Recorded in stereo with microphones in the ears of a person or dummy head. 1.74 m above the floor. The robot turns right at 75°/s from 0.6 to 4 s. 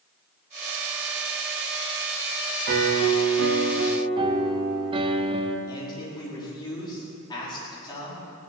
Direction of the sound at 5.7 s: 25° left (ahead or behind).